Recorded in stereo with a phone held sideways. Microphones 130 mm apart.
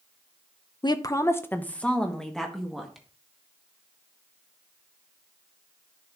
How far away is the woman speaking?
About 0.7 m.